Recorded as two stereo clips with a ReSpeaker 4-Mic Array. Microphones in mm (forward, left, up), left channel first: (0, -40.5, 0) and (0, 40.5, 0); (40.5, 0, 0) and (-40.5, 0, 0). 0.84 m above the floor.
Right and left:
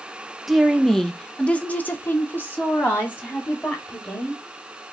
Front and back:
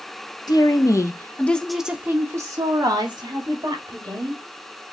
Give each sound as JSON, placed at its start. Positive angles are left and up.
{"t": 0.5, "sound": "a woman speaking", "azimuth_deg": 5, "distance_m": 0.9}